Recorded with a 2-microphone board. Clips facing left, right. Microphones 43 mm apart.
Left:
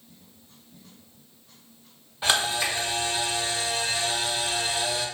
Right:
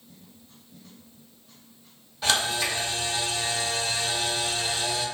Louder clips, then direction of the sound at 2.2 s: Left 1 dB; 20° left (ahead or behind).